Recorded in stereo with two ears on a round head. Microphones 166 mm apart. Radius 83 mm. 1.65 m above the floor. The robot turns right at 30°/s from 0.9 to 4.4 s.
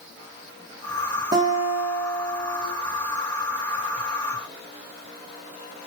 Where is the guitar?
25° right, 1.6 m; by 2.6 s 15° left, 1.6 m.